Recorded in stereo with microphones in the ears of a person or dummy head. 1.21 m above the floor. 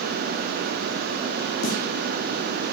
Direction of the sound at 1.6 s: 65° left (ahead or behind).